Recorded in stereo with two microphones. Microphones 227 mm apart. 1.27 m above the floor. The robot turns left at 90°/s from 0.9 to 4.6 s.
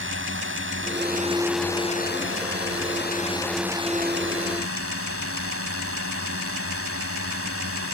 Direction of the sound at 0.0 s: 120° right.